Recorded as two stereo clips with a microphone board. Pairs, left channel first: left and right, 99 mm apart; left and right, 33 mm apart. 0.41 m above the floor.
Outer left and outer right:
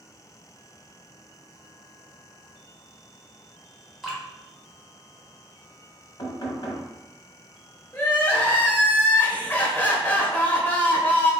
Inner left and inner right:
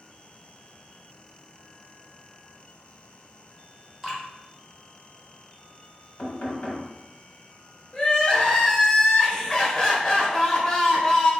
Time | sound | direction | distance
4.0 | dripping | centre (ahead or behind) | 1.5 m
6.2 | knocking | 50° left (ahead or behind) | 1.4 m
7.9 | crying | 20° left (ahead or behind) | 1.0 m